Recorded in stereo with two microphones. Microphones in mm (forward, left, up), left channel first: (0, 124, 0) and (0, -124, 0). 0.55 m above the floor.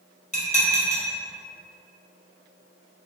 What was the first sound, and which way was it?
Dishes clattering, 30° left (ahead or behind).